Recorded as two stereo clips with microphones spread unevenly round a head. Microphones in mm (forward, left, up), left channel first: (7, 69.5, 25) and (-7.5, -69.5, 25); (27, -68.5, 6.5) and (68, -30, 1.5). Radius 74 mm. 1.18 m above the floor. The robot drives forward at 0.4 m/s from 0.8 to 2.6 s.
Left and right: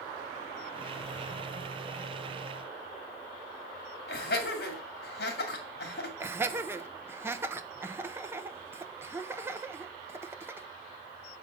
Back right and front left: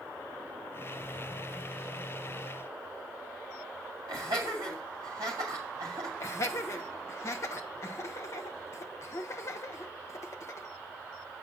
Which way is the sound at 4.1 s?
100° left.